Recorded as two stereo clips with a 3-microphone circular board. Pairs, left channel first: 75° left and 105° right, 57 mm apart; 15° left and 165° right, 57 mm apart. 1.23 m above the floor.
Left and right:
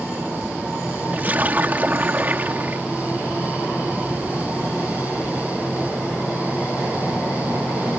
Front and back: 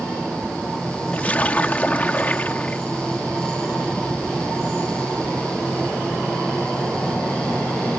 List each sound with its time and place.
1.1 s a splash: 50° right